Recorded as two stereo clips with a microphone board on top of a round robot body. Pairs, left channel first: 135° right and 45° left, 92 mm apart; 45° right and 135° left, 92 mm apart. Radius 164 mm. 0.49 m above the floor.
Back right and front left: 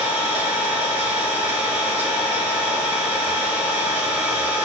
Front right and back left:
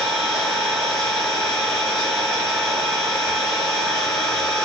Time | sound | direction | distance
0.0 | an engine running | 45° left | 1.9 m